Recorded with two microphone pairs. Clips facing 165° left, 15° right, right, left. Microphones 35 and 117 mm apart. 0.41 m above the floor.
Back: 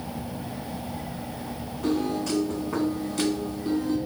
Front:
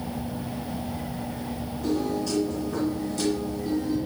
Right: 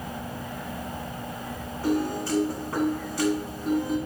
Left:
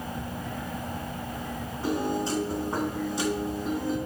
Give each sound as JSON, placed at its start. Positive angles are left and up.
{"t": 1.8, "sound": "a piano", "azimuth_deg": 155, "distance_m": 2.5}